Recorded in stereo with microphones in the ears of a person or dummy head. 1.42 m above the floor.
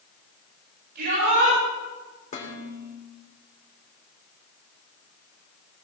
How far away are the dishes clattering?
About 3 m.